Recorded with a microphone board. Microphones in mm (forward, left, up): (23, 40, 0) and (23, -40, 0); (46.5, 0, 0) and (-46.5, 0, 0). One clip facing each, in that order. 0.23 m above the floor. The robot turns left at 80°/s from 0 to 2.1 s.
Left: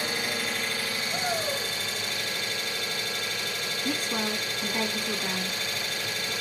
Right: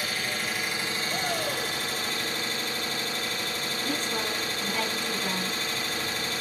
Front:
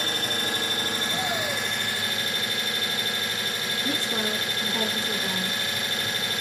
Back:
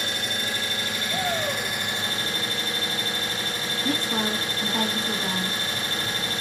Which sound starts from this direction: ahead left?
An engine running, at 0.0 s.